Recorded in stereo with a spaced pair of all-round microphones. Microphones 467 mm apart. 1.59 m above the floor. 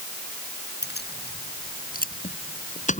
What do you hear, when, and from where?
0.8 s keys jangling: 20° left (ahead or behind); by 3.0 s 15° left (ahead or behind)